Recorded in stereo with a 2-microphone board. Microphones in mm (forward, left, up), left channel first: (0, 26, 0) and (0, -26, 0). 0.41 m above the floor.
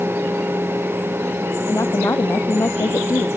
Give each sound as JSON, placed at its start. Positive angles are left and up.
{"t": 1.7, "sound": "a woman speaking", "side_deg": 65}